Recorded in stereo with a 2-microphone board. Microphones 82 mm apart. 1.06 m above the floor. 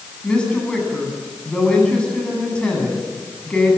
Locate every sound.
0.2 s a woman speaking: 10° left (ahead or behind), 9.5 m